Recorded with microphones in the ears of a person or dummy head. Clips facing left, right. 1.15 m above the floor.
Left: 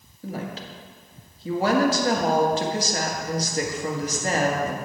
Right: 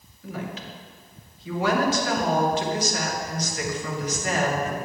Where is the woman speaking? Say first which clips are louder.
Left 1 dB; 35° left (ahead or behind), 1.7 m.